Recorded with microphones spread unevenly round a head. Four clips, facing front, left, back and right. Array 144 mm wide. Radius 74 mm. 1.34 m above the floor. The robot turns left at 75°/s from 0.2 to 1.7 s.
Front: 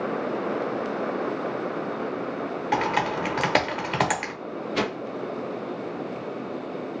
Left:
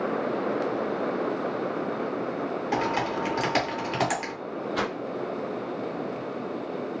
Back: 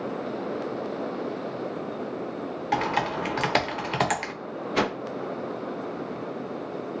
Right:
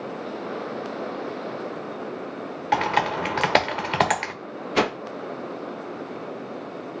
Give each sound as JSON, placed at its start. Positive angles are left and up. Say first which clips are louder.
{"t": 2.7, "sound": "typing on a keyboard", "louder": "right 6 dB, front 1 dB", "azimuth_deg": -65, "distance_m": 1.0}
{"t": 4.8, "sound": "a whoosh", "louder": "right 8 dB, back 2 dB", "azimuth_deg": -95, "distance_m": 0.6}